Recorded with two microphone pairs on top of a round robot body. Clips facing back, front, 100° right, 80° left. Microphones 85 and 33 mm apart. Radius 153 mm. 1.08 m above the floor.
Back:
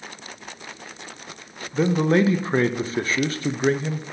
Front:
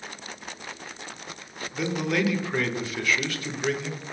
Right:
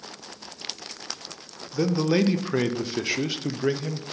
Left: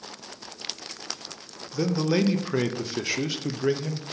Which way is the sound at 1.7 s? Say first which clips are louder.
Back 8 dB, right 2 dB; 175° left.